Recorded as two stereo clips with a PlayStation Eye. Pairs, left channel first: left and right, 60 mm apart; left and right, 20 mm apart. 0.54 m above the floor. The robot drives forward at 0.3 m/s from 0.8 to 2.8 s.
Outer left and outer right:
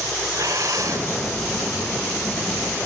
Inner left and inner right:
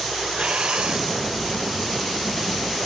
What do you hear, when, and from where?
0.3 s breathing: 70° right (ahead or behind), 0.7 m; by 1.1 s 65° right (ahead or behind), 0.8 m